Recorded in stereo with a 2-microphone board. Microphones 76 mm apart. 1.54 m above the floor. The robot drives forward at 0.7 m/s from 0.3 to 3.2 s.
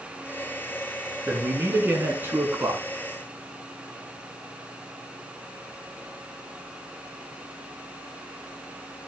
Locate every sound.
1.3 s a man speaking: 25° right (ahead or behind), 3.5 m; by 2.8 s 35° right (ahead or behind), 2.5 m